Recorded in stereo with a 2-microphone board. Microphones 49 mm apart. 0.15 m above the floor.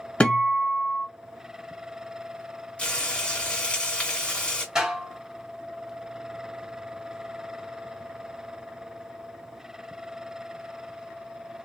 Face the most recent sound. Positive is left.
turn(degrees=-15)  # may be behind; listen again after turning